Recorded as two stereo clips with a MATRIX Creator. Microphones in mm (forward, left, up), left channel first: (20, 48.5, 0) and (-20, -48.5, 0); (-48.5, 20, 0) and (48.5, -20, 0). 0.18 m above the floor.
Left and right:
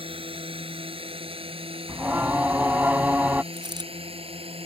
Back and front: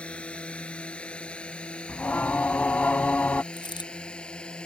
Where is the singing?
155° right.